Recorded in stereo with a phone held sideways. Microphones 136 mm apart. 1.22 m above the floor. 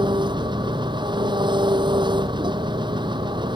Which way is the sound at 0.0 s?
35° right (ahead or behind).